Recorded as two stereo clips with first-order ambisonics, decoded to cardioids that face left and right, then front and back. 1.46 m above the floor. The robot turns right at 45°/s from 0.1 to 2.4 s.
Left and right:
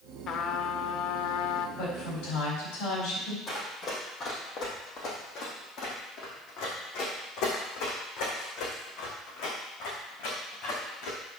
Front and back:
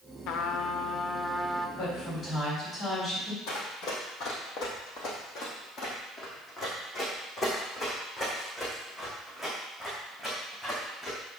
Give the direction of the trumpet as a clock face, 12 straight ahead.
11 o'clock.